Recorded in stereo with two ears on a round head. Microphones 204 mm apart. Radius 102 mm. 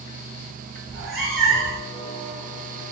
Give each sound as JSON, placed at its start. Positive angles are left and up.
{"t": 0.9, "sound": "a cat meowing", "side_deg": 0, "distance_m": 1.9}